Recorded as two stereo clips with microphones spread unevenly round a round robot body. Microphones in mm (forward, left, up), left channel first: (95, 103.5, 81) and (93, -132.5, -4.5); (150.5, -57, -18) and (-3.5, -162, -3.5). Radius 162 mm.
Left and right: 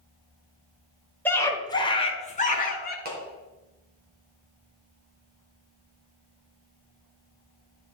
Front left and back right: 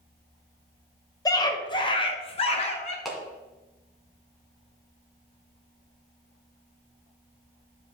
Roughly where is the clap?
Ahead right.